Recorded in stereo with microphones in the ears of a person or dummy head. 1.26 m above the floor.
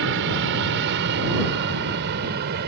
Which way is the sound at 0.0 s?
60° right (ahead or behind).